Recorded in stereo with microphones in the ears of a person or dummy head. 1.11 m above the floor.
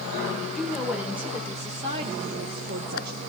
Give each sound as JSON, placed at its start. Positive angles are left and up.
{"t": 0.5, "sound": "a woman speaking", "side_deg": 0, "distance_m": 4.0}